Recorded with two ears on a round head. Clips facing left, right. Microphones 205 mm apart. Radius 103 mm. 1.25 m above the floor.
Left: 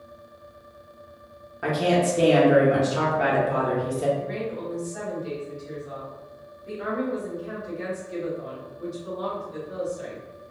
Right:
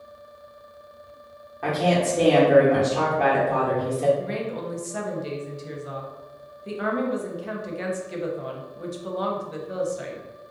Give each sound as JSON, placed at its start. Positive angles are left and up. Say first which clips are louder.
{"t": 1.6, "sound": "a woman speaking", "louder": "even", "side_deg": 15, "distance_m": 1.1}
{"t": 4.2, "sound": "a woman speaking", "louder": "right 1 dB", "side_deg": -65, "distance_m": 0.8}